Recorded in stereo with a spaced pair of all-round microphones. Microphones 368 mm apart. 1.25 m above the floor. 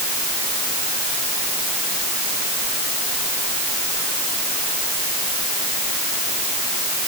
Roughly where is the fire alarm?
No fire alarm in this recording.